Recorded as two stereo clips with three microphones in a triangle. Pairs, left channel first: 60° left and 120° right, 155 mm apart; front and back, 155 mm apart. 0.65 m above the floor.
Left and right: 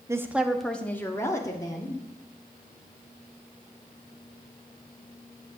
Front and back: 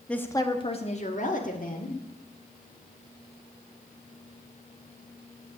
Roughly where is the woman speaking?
Right.